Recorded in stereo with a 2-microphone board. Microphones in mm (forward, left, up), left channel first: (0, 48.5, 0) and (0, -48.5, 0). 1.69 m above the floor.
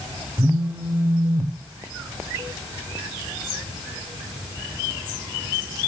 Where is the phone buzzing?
25° right (ahead or behind), 0.9 m.